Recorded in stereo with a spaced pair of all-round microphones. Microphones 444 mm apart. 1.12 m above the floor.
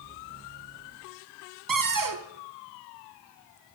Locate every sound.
1.7 s a cupboard door: 45° right (ahead or behind), 0.7 m